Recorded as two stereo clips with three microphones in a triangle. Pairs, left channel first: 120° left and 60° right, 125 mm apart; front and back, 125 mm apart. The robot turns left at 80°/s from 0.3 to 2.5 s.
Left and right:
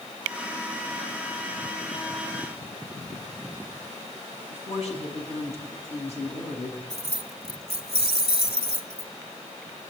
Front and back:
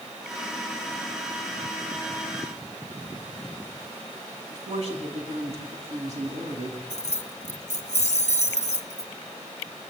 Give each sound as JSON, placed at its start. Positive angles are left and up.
{"t": 4.5, "sound": "a woman speaking", "azimuth_deg": 150, "distance_m": 6.0}
{"t": 6.9, "sound": "keys jangling", "azimuth_deg": -20, "distance_m": 1.4}